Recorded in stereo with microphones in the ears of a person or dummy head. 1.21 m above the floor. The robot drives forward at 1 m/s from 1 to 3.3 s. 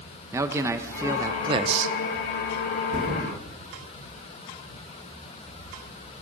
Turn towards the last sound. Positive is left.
turn(degrees=-50)  # may be behind; listen again after turning